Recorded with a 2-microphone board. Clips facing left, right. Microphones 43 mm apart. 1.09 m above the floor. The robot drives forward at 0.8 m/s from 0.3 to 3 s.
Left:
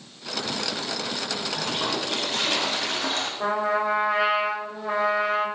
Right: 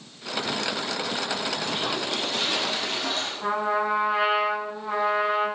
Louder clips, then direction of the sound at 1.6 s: Even; 70° left (ahead or behind).